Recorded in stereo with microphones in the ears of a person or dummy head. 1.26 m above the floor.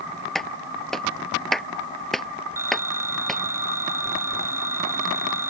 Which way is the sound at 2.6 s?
15° right (ahead or behind).